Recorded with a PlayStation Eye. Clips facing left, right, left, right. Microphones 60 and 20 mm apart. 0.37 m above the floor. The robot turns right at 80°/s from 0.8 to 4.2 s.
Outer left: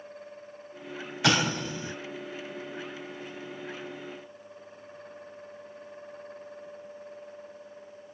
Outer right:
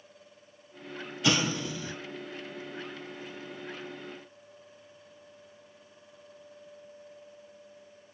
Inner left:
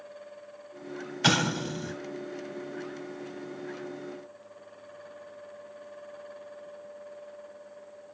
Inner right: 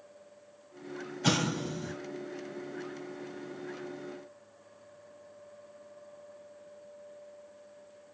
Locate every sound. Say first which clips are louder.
1.2 s an explosion: outer left 2 dB, inner left 4 dB; 75° left (ahead or behind), 0.6 m; by 1.9 s 25° left (ahead or behind), 0.6 m